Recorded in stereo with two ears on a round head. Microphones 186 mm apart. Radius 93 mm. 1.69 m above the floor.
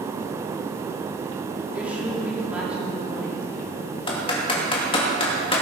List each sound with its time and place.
1.7 s a woman speaking: 5° right (ahead or behind), 4 m
4.1 s typing on a keyboard: 25° left (ahead or behind), 2.5 m